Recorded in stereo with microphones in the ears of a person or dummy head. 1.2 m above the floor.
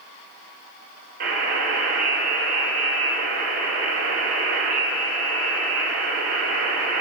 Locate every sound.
1.2 s a buzzer: 55° right (ahead or behind), 1.3 m